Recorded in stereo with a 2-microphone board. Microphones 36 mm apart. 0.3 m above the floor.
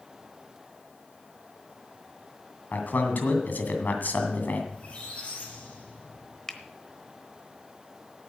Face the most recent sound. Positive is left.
turn(degrees=15)  # may be behind; listen again after turning